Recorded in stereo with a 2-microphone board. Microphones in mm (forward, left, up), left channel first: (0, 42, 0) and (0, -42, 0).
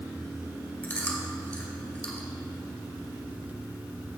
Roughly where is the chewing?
Left.